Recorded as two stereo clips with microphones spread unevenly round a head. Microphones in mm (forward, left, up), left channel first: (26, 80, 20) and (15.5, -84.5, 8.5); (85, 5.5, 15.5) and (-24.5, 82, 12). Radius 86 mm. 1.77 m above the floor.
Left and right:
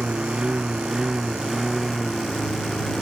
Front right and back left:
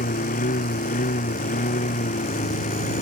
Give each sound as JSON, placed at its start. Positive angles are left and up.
{"t": 0.0, "sound": "a lawn mower", "azimuth_deg": -10}